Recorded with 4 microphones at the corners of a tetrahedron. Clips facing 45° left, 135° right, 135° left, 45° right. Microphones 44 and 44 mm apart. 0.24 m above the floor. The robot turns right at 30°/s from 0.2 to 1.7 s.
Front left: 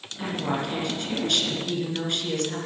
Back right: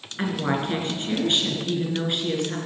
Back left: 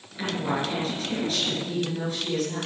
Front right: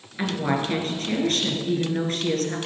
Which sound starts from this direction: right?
A woman speaking, at 0.2 s.